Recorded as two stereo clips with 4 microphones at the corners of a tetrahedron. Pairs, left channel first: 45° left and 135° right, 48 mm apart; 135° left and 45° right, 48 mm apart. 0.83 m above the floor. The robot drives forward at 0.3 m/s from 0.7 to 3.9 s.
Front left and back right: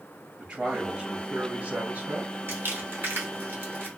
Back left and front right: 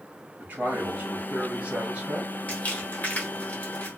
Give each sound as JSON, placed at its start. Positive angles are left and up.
{"t": 0.4, "sound": "a man speaking", "azimuth_deg": -65, "distance_m": 1.1}
{"t": 2.5, "sound": "crumpling", "azimuth_deg": -170, "distance_m": 1.0}